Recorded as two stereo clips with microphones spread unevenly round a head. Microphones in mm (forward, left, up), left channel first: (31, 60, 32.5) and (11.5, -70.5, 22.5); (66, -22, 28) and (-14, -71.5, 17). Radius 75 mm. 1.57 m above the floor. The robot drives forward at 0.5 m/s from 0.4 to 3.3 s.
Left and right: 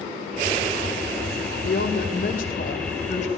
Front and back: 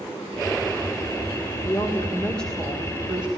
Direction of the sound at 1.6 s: 105° left.